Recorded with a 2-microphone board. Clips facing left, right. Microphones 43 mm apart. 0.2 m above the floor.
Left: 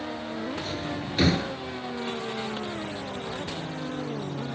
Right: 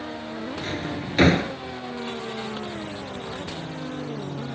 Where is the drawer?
50° right (ahead or behind).